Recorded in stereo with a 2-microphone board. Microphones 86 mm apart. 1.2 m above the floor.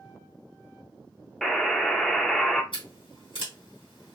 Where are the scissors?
70° left (ahead or behind), 1.6 m.